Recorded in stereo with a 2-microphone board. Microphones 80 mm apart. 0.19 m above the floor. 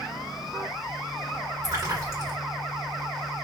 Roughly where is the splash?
Right.